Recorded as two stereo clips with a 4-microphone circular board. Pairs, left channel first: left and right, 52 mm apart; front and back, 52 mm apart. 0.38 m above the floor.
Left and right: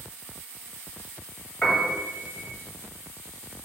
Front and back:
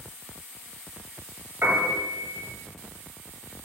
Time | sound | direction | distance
1.6 | a piano | 155° left | 2 m